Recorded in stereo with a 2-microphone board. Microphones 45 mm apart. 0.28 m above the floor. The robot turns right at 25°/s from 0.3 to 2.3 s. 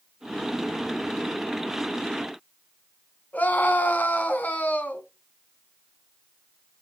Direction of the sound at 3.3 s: 40° left (ahead or behind).